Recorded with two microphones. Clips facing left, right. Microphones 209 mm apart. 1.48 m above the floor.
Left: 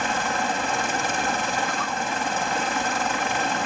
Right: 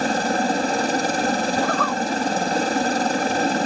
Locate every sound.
0.0 s a helicopter: 40° right (ahead or behind)
1.6 s a zipper: 65° right (ahead or behind)